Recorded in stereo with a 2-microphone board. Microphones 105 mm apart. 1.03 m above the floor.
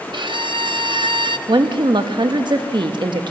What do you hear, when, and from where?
0.1 s a violin: 55° right (ahead or behind), 0.8 m
1.5 s a woman speaking: 55° right (ahead or behind), 1.4 m